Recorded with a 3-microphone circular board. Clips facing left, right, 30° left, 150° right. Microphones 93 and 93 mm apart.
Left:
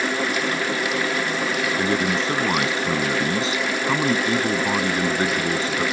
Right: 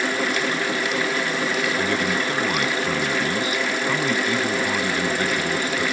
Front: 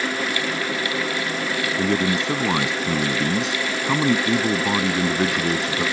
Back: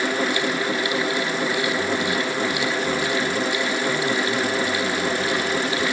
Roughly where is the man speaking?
Ahead left.